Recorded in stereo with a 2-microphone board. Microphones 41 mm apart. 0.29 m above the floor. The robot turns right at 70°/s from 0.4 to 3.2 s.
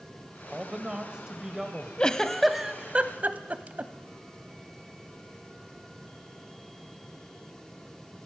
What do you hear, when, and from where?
0.5 s a man speaking: 20° right (ahead or behind), 1.4 m; by 1.9 s 5° right (ahead or behind), 1.4 m
2.0 s a giggle: 25° left (ahead or behind), 0.8 m; by 3.9 s 40° right (ahead or behind), 0.8 m